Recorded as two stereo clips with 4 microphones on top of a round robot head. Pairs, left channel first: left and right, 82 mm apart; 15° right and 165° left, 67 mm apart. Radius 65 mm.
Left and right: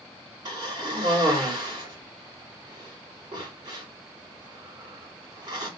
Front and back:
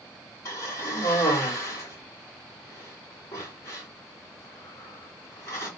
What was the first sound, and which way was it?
A cough, 60° right.